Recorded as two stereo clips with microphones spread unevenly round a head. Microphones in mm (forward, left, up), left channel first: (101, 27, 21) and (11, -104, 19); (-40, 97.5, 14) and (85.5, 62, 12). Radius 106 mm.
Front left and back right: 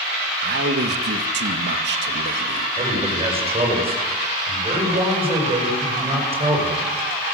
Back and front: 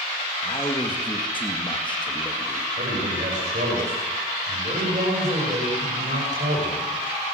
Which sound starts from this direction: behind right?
A man speaking, at 0.4 s.